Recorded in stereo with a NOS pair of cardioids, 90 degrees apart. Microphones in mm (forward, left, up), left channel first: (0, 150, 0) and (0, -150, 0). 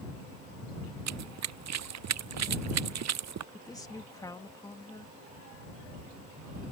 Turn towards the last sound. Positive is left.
turn(degrees=10)